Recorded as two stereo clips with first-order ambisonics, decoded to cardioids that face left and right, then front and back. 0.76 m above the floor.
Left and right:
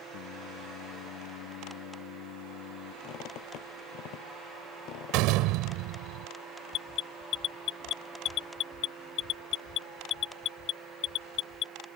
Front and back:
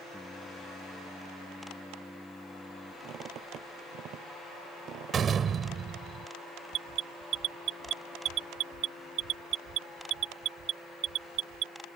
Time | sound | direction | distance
0.1 | singing | 85° left | ?
3.0 | a squeak | 125° left | ?
5.1 | a door slam | 115° right | ?
6.7 | an alarm | 135° left | ?